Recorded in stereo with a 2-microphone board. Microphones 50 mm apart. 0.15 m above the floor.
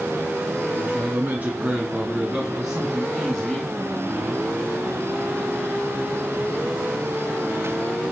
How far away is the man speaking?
About 2 m.